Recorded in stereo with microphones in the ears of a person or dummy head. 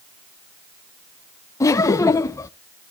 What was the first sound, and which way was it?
Laughter, 15° left (ahead or behind).